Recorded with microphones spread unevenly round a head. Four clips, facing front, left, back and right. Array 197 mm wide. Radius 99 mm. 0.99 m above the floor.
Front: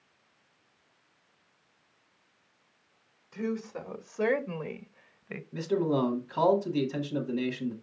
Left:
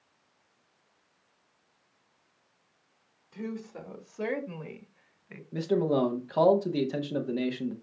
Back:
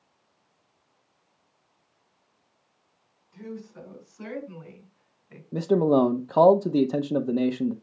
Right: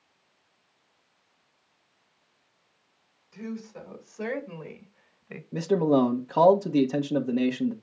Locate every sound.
3.3 s a woman speaking: 25° left, 2.5 m; by 5.4 s 30° right, 0.9 m
5.5 s a man speaking: 160° right, 0.8 m